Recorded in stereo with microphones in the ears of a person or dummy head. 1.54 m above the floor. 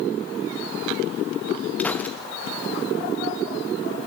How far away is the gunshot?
About 1.1 m.